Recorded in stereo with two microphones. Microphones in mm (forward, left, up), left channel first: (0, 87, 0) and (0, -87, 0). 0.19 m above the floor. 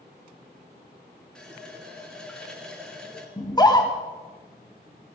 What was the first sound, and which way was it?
A running tap, 5° left (ahead or behind).